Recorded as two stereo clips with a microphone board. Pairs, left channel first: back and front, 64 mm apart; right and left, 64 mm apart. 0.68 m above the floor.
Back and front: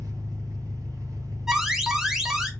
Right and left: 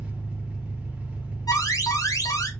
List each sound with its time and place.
0.0 s an engine running: 15° left, 1.0 m
1.5 s an alarm: 80° right, 0.6 m